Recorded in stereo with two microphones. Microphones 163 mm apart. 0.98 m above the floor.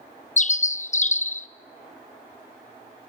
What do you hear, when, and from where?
0.4 s a bird: 50° left (ahead or behind), 0.5 m